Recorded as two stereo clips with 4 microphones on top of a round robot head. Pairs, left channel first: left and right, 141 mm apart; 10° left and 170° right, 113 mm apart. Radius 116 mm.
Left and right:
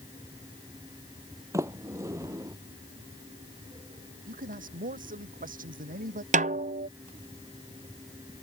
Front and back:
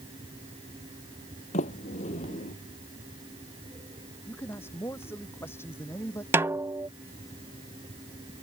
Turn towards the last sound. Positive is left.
turn(degrees=-105)